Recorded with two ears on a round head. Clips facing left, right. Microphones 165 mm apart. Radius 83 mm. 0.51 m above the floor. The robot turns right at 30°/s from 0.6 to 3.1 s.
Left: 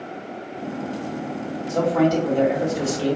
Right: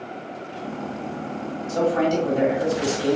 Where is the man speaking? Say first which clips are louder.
Left 2 dB; straight ahead, 1.6 m; by 3.2 s 40° left, 1.6 m.